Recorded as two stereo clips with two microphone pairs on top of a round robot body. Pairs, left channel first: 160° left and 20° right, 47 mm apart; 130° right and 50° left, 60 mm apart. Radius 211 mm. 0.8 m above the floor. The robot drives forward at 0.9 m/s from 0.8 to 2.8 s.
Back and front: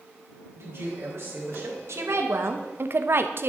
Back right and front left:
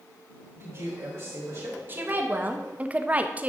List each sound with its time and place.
0.6 s a man speaking: 10° left, 4.5 m; by 1.8 s 15° left, 4 m
1.9 s a woman speaking: 10° right, 1.6 m; by 3.5 s 20° right, 1.0 m